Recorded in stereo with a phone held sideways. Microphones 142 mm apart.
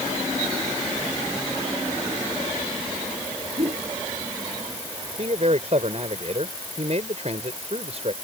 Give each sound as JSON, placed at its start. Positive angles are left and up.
{"t": 3.6, "sound": "a whoosh", "side_deg": -45}
{"t": 5.2, "sound": "a man speaking", "side_deg": -50}